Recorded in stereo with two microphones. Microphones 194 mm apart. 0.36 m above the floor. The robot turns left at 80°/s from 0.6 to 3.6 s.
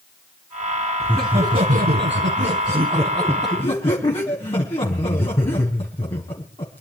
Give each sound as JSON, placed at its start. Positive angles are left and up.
{"t": 1.0, "sound": "laughter", "azimuth_deg": 0, "distance_m": 3.5}